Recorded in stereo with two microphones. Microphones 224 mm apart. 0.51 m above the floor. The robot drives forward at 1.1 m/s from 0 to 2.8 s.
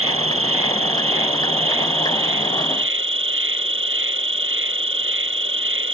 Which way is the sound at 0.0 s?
80° right.